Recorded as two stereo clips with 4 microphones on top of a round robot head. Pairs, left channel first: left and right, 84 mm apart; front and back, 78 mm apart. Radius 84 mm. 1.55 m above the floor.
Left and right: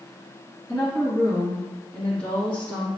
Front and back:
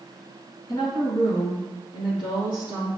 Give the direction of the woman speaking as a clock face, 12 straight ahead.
11 o'clock.